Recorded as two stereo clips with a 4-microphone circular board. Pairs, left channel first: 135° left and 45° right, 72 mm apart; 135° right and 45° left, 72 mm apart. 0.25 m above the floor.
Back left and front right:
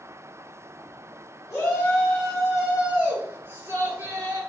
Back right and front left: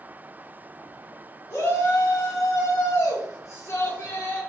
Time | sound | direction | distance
1.5 | a shout | straight behind | 1.6 m